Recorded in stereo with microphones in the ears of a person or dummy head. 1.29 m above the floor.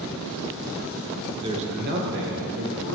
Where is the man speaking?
25° right (ahead or behind), 0.9 m; by 2.9 s 85° right, 1.9 m.